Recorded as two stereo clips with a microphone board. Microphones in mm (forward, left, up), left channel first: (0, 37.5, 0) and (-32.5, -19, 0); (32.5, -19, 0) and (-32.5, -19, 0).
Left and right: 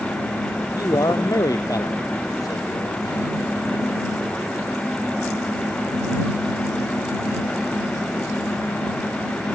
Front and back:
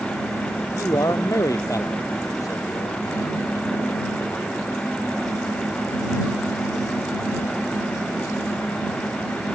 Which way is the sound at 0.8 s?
35° left.